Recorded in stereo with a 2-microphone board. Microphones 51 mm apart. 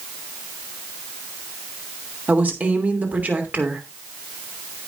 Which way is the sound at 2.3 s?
35° right (ahead or behind).